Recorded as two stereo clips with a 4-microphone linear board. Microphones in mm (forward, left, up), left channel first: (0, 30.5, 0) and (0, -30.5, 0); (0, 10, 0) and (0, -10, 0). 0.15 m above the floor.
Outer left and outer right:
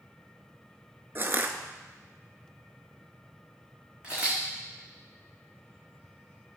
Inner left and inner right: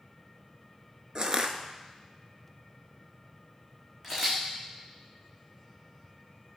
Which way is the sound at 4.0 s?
15° right (ahead or behind).